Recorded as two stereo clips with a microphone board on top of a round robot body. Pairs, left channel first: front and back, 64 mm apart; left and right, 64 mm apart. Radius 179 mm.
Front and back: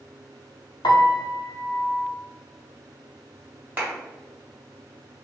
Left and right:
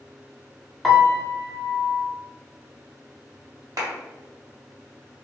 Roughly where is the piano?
Ahead.